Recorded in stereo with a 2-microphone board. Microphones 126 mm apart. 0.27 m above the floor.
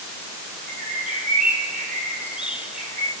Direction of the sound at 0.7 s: 10° right (ahead or behind).